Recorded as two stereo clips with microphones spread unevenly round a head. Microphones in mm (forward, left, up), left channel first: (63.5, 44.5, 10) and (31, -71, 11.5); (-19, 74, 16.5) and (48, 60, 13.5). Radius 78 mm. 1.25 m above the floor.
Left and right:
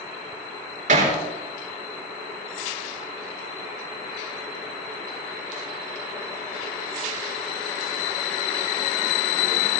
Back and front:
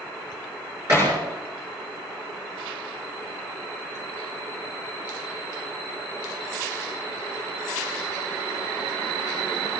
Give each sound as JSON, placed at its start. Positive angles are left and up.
{"t": 0.9, "sound": "hammering", "azimuth_deg": -85, "distance_m": 6.0}